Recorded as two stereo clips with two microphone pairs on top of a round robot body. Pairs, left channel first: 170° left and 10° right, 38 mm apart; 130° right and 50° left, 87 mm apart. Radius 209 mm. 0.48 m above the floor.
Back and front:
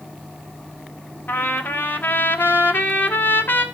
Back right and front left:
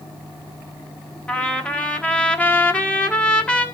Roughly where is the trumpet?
Behind left.